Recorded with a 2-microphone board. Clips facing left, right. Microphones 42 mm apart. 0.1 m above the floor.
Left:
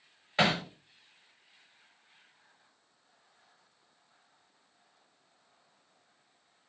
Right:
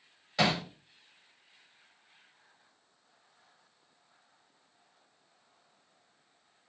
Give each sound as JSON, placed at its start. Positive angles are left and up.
{"t": 0.4, "sound": "hammering", "side_deg": 35, "distance_m": 5.0}